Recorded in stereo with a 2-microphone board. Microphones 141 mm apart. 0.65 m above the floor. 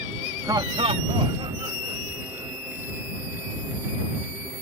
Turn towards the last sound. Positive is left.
turn(degrees=-25)  # may be behind; listen again after turning